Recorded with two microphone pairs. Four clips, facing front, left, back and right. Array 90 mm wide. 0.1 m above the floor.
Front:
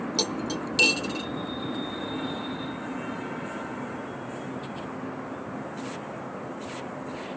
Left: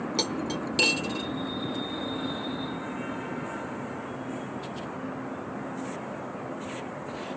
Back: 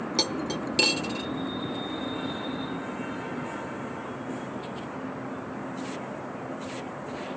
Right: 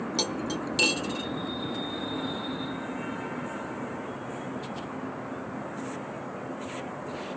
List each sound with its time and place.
0.2 s cutlery clinking: 150° left, 0.9 m